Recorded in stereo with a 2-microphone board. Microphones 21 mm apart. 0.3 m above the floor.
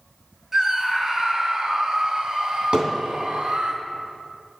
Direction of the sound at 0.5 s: 20° right (ahead or behind).